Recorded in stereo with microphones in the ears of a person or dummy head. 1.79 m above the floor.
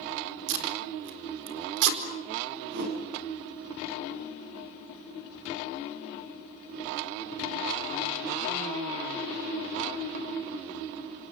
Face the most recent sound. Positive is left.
turn(degrees=-55)  # may be behind; listen again after turning